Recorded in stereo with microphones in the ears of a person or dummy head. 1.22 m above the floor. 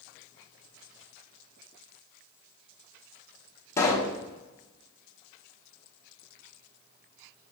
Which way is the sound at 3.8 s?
10° left (ahead or behind).